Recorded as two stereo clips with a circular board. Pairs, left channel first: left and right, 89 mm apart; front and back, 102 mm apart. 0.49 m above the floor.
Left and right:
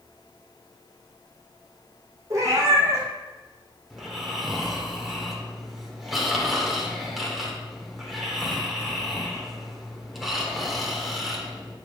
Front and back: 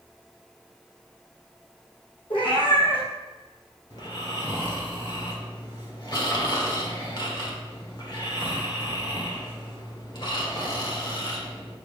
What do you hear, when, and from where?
2.3 s a cat meowing: 35° right, 3 m
3.9 s snoring: straight ahead, 1.8 m